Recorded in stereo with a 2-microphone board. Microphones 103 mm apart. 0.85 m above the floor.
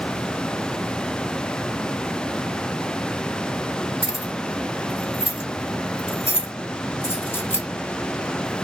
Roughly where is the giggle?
I don't hear a giggle.